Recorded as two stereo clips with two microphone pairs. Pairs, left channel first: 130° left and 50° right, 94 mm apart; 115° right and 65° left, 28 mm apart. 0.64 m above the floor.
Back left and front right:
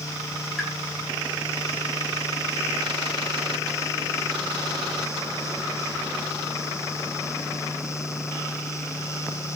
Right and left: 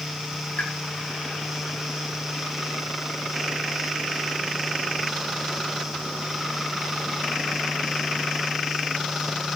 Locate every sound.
0.6 s a pop: 145° right, 7.5 m